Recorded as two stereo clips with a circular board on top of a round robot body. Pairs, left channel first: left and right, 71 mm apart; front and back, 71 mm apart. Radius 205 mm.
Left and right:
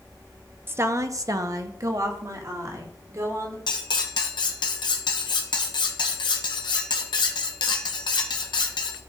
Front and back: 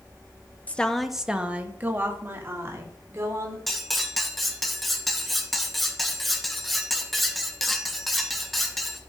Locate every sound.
0.7 s a woman speaking: 55° right, 1.0 m; by 3.6 s 130° right, 3.5 m
3.7 s cutlery clinking: 90° left, 0.8 m